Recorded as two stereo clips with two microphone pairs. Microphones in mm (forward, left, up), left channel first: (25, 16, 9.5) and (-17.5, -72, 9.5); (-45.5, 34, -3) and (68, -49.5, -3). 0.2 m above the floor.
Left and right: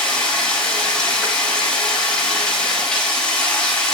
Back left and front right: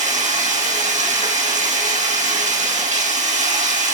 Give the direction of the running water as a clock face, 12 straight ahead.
1 o'clock.